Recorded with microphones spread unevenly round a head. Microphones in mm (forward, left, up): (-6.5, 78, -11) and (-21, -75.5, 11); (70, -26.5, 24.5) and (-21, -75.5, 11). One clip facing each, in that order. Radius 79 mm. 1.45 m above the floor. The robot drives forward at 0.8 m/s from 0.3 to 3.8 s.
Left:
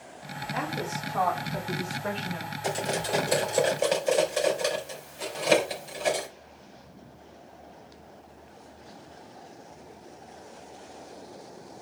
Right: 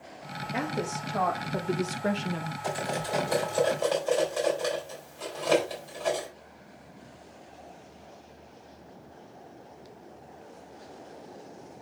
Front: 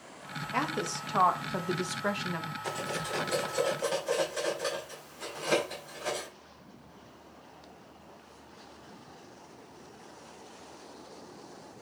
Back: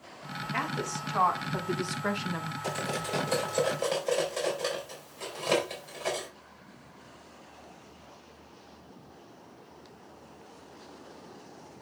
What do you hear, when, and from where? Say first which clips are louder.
0.5 s a woman speaking: right 1 dB, front 1 dB; 30° right, 2.5 m; by 2.5 s 70° right, 1.3 m
2.6 s cutlery clinking: left 3 dB, back 3 dB; 145° left, 3.5 m; by 6.3 s 155° left, 4 m